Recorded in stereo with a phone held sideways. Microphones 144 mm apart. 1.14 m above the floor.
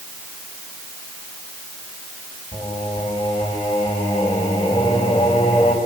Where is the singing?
30° left (ahead or behind), 4.5 m.